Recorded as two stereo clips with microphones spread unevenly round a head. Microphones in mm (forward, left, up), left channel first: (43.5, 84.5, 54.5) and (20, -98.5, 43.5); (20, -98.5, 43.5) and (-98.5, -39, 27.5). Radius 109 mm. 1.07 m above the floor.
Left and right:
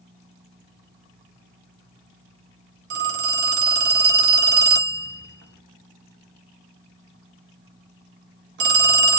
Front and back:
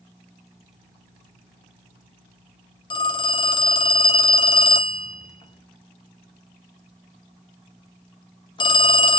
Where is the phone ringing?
75° right, 0.5 m.